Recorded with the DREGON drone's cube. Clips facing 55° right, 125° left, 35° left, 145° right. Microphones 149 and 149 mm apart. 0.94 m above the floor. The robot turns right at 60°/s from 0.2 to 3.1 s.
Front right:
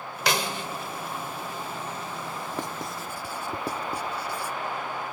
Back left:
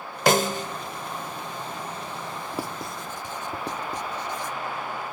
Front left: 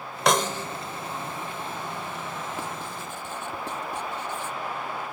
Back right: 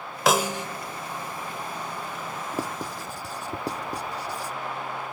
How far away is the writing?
About 0.5 m.